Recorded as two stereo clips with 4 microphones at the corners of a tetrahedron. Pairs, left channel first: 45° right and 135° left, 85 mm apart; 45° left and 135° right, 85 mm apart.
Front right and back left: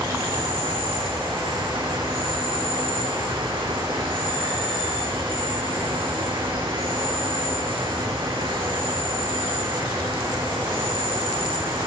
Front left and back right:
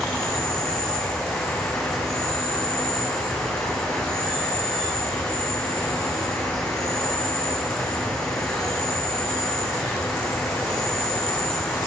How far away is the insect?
About 8 m.